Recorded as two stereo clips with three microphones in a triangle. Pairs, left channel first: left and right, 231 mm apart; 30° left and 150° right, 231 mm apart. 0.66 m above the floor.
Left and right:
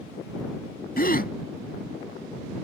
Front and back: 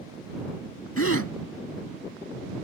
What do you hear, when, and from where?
1.0 s a gasp: 40° left